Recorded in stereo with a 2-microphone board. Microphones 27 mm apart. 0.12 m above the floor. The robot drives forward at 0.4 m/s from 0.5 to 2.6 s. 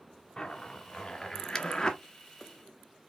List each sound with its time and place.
0.4 s a zipper: 30° left (ahead or behind), 1.8 m